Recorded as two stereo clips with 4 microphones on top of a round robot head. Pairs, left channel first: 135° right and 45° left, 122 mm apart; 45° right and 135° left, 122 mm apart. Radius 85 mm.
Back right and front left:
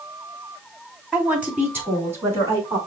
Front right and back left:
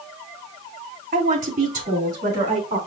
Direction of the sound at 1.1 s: 125° left.